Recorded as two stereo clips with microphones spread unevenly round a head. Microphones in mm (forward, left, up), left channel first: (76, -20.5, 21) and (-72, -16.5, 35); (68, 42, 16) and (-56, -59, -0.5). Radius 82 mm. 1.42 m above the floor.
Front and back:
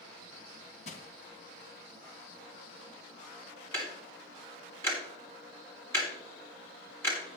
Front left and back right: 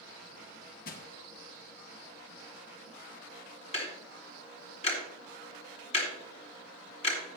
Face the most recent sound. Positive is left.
turn(degrees=75)